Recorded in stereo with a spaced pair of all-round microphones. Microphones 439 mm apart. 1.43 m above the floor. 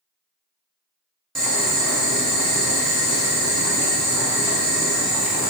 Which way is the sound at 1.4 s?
Centre (ahead or behind).